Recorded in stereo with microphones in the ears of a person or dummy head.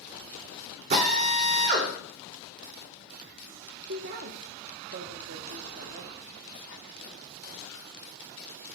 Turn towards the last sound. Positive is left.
turn(degrees=-45)  # may be behind; listen again after turning